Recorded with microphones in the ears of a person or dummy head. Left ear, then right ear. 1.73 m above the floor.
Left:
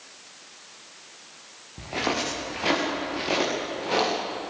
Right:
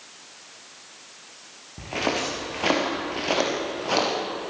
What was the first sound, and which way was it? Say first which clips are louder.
Footsteps: right 1 dB; 10° right (ahead or behind).